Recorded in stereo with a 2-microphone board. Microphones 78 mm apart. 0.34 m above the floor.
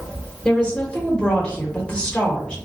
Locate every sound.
0.5 s a woman speaking: 15° left (ahead or behind), 0.9 m